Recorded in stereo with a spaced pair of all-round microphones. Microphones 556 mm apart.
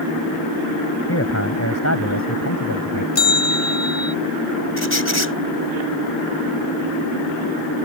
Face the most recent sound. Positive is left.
turn(degrees=25)  # may be behind; listen again after turning